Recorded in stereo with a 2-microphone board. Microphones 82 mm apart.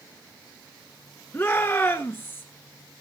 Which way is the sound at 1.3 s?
30° left (ahead or behind).